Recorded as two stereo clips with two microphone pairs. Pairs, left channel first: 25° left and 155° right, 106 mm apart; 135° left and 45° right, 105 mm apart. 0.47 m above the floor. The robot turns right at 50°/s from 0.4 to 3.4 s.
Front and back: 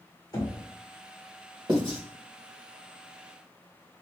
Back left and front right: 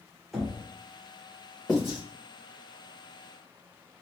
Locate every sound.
0.3 s knocking: 45° left, 1.0 m; by 0.6 s 60° left, 1.0 m
1.7 s writing: 140° right, 1.6 m; by 2.0 s 120° right, 1.6 m